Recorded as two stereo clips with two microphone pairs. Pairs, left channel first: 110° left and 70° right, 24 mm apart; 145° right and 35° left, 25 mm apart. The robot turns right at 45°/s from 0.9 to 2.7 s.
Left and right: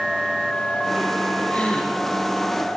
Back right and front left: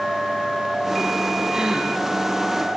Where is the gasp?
90° left, 6 m; by 1.9 s 110° left, 6 m.